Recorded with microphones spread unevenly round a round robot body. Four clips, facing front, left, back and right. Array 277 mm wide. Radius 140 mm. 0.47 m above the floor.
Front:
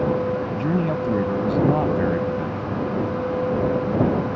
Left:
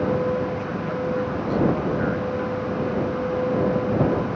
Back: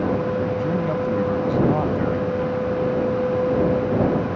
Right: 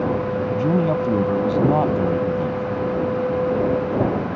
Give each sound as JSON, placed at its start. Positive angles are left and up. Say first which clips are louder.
{"t": 0.5, "sound": "a man speaking", "louder": "right 8 dB, even", "azimuth_deg": -60}